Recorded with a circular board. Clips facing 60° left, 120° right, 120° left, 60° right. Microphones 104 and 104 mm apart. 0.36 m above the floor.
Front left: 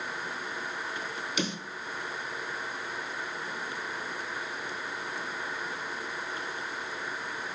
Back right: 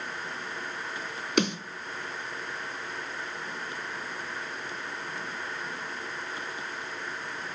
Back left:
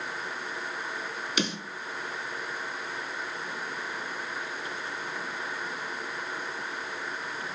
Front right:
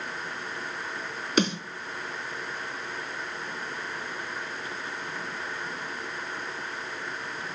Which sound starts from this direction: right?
A snare drum, at 1.4 s.